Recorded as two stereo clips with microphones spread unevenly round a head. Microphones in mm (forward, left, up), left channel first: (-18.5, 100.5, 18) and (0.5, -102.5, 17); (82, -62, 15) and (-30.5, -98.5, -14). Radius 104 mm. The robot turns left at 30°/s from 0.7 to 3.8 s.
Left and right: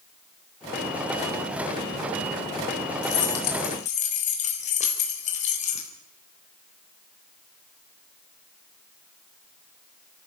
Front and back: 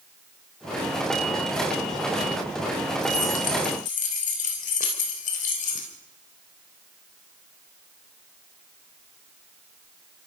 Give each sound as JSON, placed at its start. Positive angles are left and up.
{"t": 3.0, "sound": "keys jangling", "azimuth_deg": 60, "distance_m": 3.5}